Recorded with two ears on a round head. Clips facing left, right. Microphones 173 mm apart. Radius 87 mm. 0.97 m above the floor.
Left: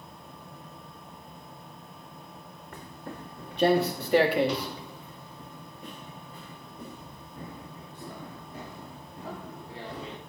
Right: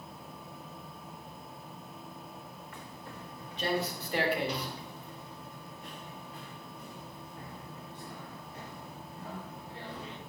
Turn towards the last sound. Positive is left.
turn(degrees=60)  # may be behind; listen again after turning